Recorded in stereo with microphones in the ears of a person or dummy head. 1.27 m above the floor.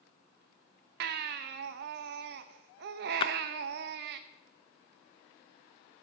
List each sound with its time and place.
1.0 s a baby crying: 55° right (ahead or behind), 0.7 m
3.2 s a splash: 30° left (ahead or behind), 0.5 m